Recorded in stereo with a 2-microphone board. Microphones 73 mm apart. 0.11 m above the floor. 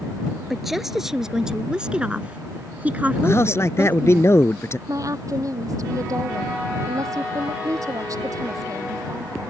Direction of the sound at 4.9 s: 50° right (ahead or behind).